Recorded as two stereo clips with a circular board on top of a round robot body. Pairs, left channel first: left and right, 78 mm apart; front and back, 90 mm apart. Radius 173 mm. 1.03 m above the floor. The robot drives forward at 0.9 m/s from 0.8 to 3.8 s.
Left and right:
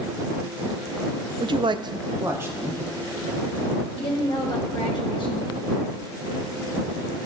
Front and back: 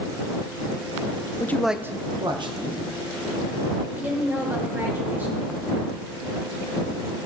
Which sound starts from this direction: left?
A woman speaking, at 4.0 s.